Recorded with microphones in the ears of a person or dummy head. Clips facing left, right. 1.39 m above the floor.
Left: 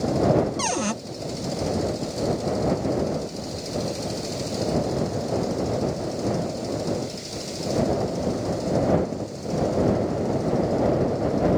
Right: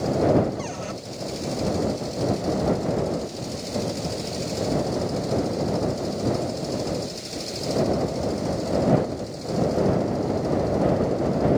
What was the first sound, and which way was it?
A cupboard door, 80° left.